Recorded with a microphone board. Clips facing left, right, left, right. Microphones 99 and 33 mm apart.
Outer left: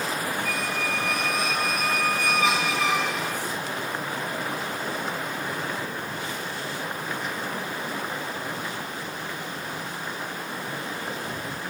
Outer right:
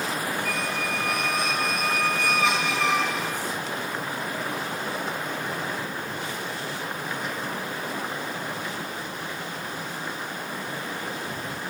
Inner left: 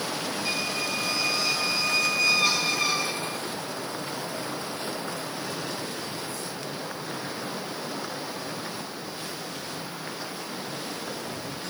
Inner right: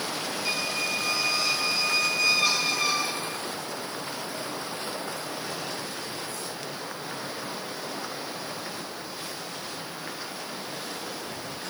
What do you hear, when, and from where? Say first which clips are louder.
0.5 s a squeak: even, inner right 1 dB; centre (ahead or behind), 1.1 m